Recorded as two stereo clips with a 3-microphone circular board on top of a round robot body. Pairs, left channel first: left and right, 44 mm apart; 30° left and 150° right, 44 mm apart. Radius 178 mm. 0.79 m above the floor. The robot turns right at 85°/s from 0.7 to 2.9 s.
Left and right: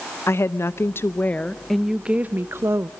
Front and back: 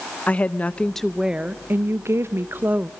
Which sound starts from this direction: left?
A woman speaking, at 0.3 s.